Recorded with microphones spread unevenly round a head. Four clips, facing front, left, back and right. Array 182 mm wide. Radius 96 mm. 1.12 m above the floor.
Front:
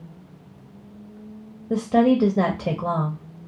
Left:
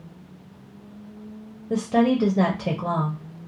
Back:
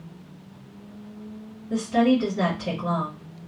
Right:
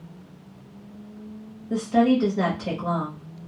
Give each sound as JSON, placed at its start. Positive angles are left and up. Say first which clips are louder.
{"t": 1.7, "sound": "a woman speaking", "louder": "right 1 dB, front 2 dB", "azimuth_deg": 25, "distance_m": 0.8}